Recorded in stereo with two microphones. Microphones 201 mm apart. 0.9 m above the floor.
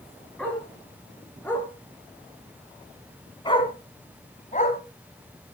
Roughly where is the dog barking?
Centre.